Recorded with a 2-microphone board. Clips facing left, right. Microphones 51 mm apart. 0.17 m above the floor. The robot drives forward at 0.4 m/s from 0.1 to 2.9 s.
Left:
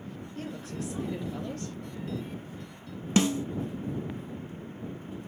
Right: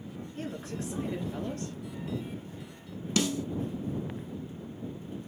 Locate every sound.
0.3 s a woman speaking: 30° right (ahead or behind), 1.9 m; by 1.8 s 25° right (ahead or behind), 2.5 m
3.2 s a snare drum: 30° left (ahead or behind), 0.5 m